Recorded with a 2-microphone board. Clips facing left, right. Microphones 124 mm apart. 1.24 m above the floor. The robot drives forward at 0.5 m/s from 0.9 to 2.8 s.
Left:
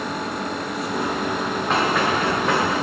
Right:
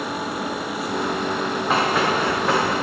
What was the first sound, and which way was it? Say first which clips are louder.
Running footsteps: even; 5° right (ahead or behind).